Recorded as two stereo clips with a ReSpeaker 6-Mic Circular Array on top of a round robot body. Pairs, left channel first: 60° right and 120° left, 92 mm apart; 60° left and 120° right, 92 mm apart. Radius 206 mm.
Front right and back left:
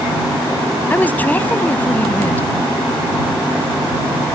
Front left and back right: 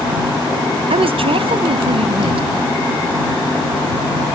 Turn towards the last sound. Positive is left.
turn(degrees=-130)